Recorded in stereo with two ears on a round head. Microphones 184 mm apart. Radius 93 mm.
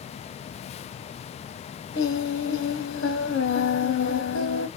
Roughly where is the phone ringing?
No phone ringing in this recording.